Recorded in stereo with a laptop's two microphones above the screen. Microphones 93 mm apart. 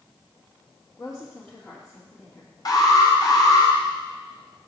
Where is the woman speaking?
25° left (ahead or behind), 2 m.